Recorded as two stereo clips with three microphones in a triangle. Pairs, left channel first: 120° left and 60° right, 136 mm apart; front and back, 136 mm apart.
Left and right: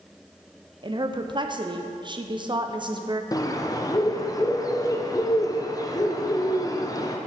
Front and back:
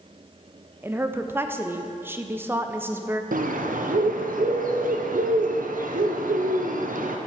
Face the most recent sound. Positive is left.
turn(degrees=180)